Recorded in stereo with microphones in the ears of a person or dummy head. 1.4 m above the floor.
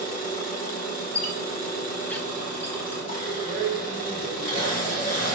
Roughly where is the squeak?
Centre.